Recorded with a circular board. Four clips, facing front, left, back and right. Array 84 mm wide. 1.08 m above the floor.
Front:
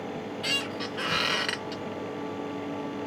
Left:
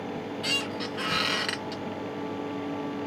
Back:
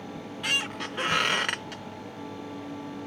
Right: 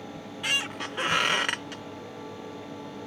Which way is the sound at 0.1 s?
125° right.